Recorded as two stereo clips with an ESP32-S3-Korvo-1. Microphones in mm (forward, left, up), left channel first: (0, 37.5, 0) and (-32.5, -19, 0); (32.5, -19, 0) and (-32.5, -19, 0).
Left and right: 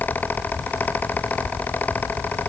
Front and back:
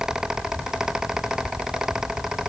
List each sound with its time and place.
Only background noise.